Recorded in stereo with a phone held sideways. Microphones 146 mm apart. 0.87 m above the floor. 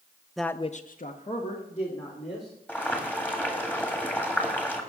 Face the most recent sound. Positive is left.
turn(degrees=10)  # may be behind; listen again after turning